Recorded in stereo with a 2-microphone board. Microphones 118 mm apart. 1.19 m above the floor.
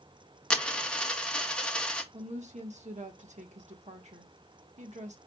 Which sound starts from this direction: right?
A woman speaking, at 2.1 s.